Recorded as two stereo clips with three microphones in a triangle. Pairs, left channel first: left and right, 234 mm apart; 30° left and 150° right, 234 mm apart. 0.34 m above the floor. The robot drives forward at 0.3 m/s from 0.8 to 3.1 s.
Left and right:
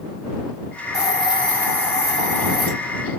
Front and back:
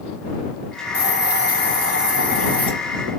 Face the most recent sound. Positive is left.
turn(degrees=-165)